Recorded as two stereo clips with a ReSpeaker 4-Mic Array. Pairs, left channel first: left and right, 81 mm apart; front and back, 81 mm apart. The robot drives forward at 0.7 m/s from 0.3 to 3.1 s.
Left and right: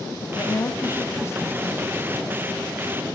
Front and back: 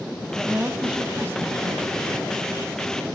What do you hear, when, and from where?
0.3 s a woman speaking: 90° left, 1.2 m; by 2.1 s 150° left, 1.7 m